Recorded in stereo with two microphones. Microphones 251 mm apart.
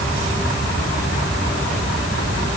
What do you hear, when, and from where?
Only background noise.